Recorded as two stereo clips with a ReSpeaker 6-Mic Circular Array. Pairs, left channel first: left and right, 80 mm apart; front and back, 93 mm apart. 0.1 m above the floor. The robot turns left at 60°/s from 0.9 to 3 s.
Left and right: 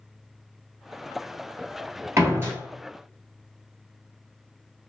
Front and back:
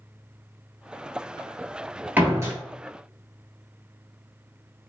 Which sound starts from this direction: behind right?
A door slam, at 2.2 s.